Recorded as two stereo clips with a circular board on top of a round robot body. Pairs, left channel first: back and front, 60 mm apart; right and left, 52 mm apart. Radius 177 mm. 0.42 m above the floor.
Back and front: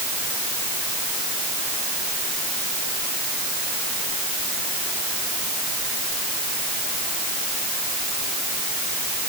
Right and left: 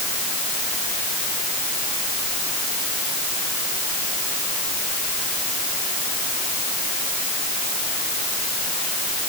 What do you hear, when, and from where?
Only background noise.